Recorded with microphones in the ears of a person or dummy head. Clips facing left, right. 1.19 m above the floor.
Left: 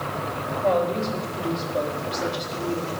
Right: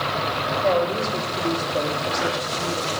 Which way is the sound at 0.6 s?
10° right (ahead or behind).